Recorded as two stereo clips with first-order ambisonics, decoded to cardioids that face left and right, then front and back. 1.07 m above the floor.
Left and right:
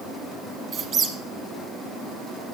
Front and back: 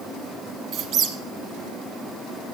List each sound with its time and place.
0.7 s a squeak: 140° right, 1.3 m